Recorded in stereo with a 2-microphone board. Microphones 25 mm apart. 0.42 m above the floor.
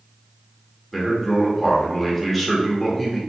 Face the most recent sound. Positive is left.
turn(degrees=5)  # may be behind; listen again after turning